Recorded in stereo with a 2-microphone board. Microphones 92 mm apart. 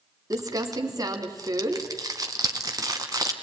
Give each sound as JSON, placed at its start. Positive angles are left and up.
{"t": 0.3, "sound": "crumpling", "side_deg": -40, "distance_m": 2.0}